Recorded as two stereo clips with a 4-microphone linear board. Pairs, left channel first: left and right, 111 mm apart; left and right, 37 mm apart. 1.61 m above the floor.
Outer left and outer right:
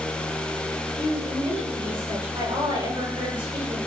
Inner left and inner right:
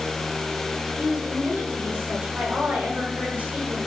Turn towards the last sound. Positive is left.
turn(degrees=-50)  # may be behind; listen again after turning